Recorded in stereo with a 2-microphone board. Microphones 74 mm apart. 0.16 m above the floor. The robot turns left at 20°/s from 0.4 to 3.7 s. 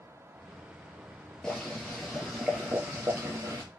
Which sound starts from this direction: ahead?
Boiling, at 1.4 s.